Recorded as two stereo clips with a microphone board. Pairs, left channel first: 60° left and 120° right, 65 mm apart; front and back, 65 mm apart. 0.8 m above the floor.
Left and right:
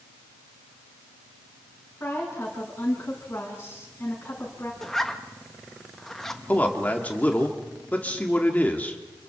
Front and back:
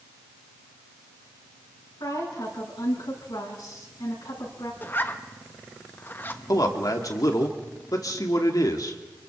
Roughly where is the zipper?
Ahead.